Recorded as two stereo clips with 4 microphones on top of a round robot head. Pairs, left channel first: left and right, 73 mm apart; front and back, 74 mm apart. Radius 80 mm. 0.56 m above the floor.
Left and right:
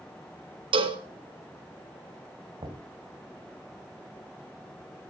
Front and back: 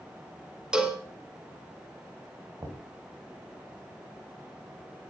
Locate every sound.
0.7 s a cowbell: 95° right, 1.7 m
2.6 s knocking: 120° right, 2.5 m